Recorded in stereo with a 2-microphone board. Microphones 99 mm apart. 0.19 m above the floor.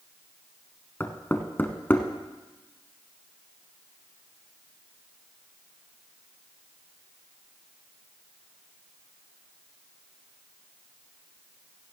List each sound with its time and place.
1.0 s knocking: 20° left (ahead or behind), 1.0 m